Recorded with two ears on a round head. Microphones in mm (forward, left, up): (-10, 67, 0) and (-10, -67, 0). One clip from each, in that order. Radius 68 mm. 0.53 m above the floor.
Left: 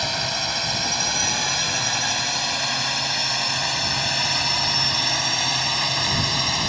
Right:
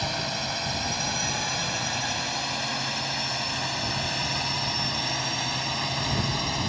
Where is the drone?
30° left (ahead or behind); by 6.7 s 40° left (ahead or behind).